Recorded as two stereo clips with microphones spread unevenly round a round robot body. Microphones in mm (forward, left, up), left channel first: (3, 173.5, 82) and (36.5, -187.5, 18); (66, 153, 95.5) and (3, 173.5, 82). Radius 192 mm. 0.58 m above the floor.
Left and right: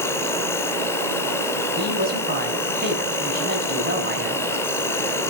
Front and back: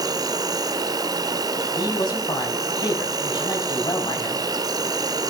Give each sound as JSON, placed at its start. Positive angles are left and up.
{"t": 0.0, "sound": "an insect", "azimuth_deg": 180, "distance_m": 1.1}
{"t": 1.8, "sound": "a woman speaking", "azimuth_deg": -20, "distance_m": 5.5}